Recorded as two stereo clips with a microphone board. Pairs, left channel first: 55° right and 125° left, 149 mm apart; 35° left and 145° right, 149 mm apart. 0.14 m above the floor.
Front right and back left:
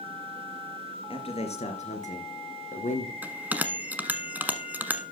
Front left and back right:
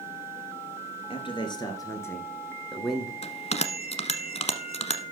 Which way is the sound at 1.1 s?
10° right.